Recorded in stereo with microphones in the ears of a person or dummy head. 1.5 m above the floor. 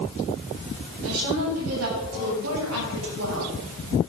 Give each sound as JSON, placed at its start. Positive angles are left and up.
{"t": 1.0, "sound": "a woman speaking", "side_deg": -85, "distance_m": 7.5}